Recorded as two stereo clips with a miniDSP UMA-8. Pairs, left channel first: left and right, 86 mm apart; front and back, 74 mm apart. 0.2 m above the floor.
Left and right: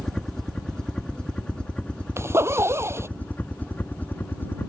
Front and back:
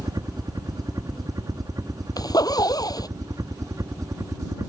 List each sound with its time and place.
0.0 s a helicopter: 175° left; by 4.7 s 150° left
2.2 s a zipper: 30° right